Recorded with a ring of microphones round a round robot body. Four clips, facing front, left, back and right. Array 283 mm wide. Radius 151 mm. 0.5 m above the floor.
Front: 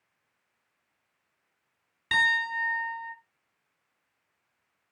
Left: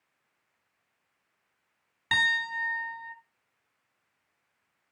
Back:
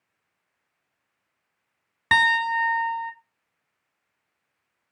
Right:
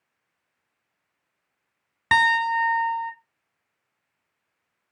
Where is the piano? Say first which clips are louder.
Right 10 dB, back 7 dB; 135° right, 1.1 m.